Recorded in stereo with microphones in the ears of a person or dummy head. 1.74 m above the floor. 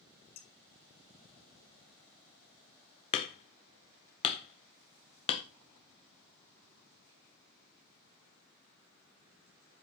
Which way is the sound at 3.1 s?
30° left (ahead or behind).